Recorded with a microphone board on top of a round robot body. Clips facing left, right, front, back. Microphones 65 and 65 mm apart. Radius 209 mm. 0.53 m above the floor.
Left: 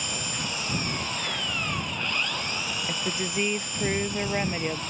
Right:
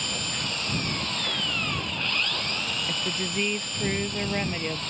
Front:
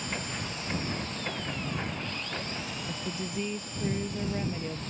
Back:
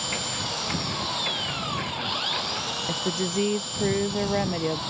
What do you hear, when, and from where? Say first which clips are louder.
0.0 s an engine running: even, back 4 dB; 170° left
2.9 s a woman speaking: even, back 10 dB; 165° left